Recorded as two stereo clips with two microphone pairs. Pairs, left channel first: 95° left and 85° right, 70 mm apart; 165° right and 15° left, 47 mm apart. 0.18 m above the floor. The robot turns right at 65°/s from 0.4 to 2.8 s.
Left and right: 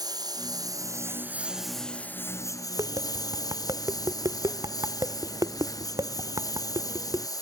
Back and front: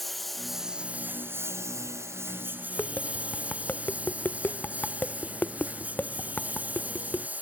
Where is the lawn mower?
75° right; by 7.4 s 70° left.